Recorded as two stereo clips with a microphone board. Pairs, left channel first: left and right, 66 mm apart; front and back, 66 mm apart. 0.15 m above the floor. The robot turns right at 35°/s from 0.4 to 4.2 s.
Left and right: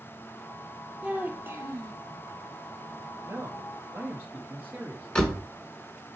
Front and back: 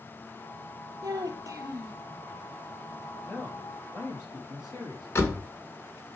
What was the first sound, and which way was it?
A child speaking, 165° right.